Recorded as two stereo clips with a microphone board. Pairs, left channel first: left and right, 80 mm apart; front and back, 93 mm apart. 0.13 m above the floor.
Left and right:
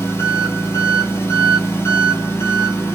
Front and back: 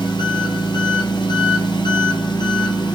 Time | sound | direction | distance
0.0 | an engine running | 35° left | 1.0 m